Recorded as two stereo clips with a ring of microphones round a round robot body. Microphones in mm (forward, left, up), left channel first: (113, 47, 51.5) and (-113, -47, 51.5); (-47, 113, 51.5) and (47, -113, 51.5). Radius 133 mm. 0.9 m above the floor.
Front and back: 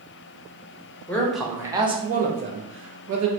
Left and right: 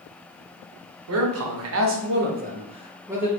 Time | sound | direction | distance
1.1 | a man speaking | 60° right | 0.9 m